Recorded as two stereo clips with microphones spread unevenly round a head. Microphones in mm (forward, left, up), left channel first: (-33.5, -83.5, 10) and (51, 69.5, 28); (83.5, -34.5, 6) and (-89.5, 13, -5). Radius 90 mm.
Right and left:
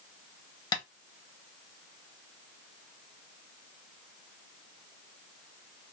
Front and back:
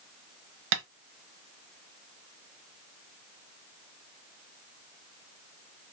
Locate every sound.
0.7 s tapping: 170° left, 0.8 m